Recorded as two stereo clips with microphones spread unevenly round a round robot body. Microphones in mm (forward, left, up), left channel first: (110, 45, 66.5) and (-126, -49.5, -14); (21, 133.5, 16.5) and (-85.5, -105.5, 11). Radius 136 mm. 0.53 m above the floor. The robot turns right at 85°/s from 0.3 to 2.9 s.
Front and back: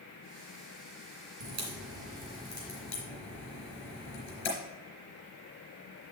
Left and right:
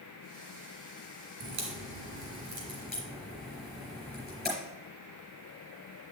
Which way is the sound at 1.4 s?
150° right.